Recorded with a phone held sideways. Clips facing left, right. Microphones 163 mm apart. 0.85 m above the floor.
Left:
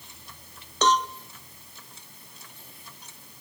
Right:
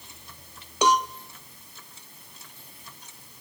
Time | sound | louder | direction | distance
0.8 | a cowbell | right 1 dB | 10° right (ahead or behind) | 0.5 m